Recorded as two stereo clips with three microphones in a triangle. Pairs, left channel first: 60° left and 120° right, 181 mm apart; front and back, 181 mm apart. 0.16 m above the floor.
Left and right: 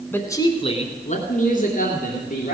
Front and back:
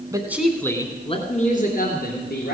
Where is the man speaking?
130° left, 1.4 m; by 2.5 s 20° left, 3 m.